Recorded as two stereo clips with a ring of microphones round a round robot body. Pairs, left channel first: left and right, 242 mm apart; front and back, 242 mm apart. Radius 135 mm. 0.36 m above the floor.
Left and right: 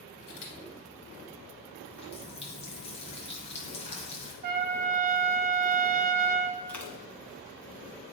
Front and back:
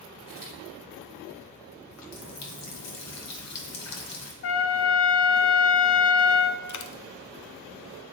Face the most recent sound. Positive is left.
turn(degrees=5)